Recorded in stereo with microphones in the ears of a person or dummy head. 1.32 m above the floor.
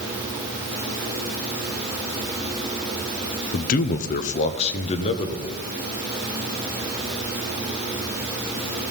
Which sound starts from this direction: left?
A man speaking, at 3.5 s.